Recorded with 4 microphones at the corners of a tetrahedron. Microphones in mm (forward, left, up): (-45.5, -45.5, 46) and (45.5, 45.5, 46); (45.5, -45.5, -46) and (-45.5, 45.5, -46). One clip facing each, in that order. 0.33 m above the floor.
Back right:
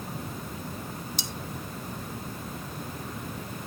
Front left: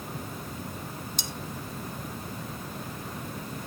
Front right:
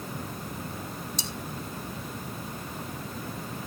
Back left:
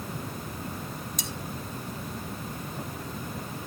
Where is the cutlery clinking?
10° left, 1.3 m.